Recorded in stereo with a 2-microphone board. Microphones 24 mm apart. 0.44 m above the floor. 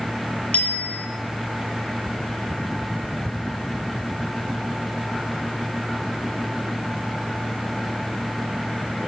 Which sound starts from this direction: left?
A bicycle bell, at 0.5 s.